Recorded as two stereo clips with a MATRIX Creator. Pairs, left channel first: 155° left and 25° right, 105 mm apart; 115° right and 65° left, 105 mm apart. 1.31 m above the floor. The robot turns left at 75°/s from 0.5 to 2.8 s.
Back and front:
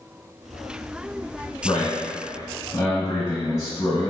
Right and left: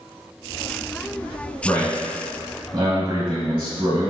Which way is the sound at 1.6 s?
170° right.